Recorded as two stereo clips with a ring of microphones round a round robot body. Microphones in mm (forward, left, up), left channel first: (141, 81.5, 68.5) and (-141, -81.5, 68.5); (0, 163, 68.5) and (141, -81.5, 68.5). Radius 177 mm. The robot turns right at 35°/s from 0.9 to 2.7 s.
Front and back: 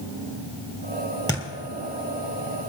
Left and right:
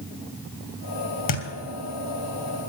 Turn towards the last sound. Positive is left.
turn(degrees=160)